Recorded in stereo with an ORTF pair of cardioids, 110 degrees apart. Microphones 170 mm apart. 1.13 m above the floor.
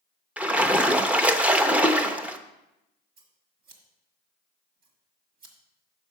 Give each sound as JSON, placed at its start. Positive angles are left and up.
{"t": 0.4, "sound": "a splash", "azimuth_deg": -10, "distance_m": 0.6}
{"t": 3.2, "sound": "scissors", "azimuth_deg": -60, "distance_m": 1.5}